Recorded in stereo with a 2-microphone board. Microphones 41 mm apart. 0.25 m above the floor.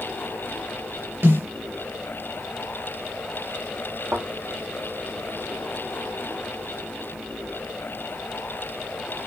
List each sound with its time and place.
1.2 s a snare drum: 70° right (ahead or behind), 4.5 m
4.1 s a thud: 85° right, 4 m